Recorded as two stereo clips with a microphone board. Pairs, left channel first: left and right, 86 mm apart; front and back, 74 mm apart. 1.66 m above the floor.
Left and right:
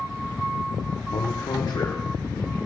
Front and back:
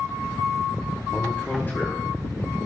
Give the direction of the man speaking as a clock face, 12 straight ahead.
9 o'clock.